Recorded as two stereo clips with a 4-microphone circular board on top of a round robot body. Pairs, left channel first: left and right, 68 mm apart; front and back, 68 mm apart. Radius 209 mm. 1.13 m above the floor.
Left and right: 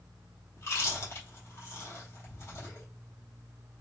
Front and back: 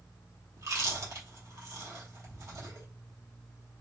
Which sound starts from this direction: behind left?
Chewing, at 0.6 s.